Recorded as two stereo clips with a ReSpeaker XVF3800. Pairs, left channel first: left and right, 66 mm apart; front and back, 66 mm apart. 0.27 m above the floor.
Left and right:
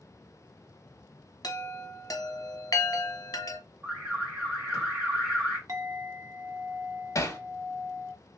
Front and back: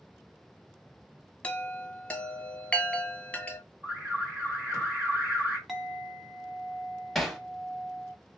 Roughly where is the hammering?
Left.